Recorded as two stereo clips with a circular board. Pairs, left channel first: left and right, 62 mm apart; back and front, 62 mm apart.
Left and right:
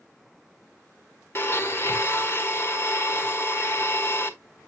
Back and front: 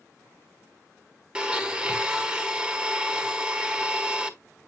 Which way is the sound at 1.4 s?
70° left.